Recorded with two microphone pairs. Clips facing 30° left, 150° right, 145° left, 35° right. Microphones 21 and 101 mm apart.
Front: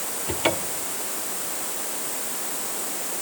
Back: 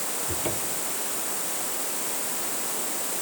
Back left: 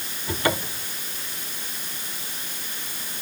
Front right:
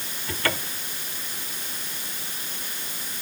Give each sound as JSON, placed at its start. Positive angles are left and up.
{"t": 0.3, "sound": "a cupboard door", "azimuth_deg": 75}